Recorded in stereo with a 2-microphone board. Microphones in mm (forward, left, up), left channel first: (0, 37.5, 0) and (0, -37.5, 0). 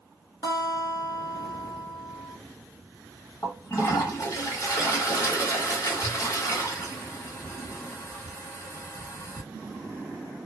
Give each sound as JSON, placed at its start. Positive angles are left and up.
{"t": 0.4, "sound": "a guitar", "side_deg": 60, "distance_m": 0.8}
{"t": 3.4, "sound": "a toilet flushing", "side_deg": 45, "distance_m": 1.7}